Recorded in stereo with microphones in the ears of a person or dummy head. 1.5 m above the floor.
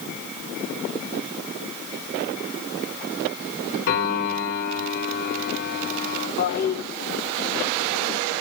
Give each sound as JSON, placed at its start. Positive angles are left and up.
{"t": 3.9, "sound": "a piano", "side_deg": 60, "distance_m": 5.0}
{"t": 6.4, "sound": "a toilet flushing", "side_deg": 45, "distance_m": 1.2}